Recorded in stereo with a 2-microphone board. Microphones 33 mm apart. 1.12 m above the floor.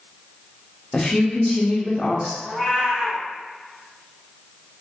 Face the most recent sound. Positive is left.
turn(degrees=-15)  # may be behind; listen again after turning